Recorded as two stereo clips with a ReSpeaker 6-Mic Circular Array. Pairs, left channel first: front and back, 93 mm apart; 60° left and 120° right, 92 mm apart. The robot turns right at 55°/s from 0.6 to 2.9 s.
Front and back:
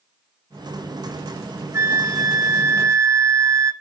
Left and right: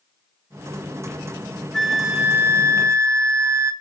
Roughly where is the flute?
Behind left.